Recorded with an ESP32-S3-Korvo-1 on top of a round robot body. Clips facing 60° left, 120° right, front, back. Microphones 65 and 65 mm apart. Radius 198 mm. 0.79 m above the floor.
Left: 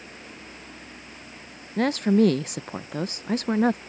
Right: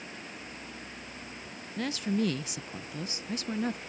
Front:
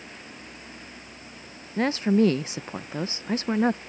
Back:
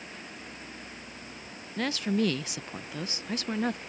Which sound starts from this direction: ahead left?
A woman speaking, at 1.8 s.